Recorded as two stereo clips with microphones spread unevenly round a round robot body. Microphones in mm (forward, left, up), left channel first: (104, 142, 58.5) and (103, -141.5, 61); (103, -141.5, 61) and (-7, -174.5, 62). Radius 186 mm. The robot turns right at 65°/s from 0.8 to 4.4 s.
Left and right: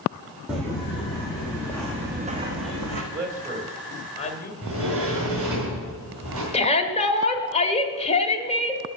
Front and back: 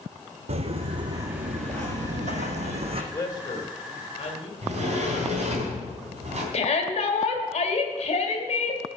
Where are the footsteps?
175° right, 0.7 m; by 3.0 s 125° right, 1.5 m.